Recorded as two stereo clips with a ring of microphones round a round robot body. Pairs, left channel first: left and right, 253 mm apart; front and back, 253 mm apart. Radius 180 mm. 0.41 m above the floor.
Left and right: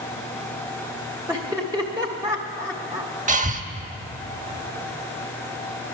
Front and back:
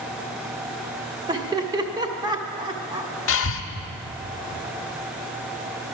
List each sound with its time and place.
1.3 s laughter: 140° right, 0.9 m
3.3 s breathing: 30° right, 0.8 m